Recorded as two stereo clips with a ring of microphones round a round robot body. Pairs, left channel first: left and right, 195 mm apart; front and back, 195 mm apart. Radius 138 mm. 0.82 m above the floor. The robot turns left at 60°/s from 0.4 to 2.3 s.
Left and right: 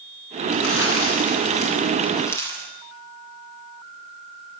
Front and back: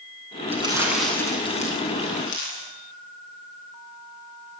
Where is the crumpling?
120° left, 9.5 m; by 2.7 s 15° left, 9.5 m.